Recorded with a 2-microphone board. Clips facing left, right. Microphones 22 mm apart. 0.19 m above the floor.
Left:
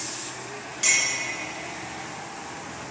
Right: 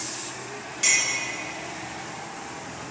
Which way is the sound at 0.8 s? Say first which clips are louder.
Even; centre (ahead or behind).